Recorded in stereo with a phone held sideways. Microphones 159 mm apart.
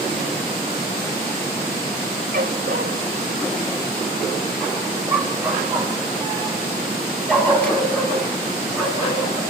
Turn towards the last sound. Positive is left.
turn(degrees=10)  # may be behind; listen again after turning